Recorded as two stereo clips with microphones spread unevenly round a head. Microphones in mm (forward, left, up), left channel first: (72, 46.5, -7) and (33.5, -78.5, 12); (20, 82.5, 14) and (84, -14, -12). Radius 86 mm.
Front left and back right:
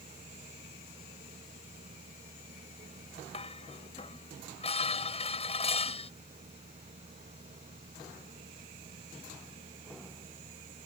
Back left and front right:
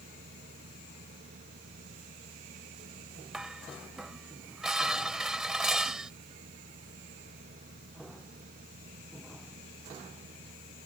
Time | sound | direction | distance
0.0 | a machine running | 70° right | ?
3.3 | dishes clattering | 30° left | ?